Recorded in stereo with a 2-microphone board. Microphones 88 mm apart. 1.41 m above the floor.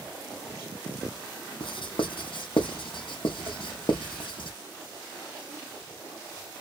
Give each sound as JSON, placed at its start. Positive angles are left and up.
{"t": 1.6, "sound": "writing", "side_deg": 70, "distance_m": 0.6}